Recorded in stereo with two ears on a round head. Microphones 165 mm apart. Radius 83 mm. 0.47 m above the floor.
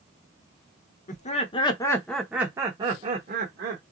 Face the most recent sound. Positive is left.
turn(degrees=-50)  # may be behind; listen again after turning